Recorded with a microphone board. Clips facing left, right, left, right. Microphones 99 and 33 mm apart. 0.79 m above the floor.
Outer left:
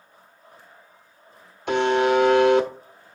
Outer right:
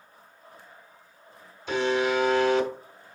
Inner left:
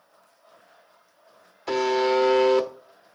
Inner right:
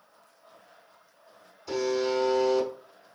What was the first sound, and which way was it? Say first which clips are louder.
A buzzer: outer left 5 dB, inner left 5 dB; 65° left (ahead or behind).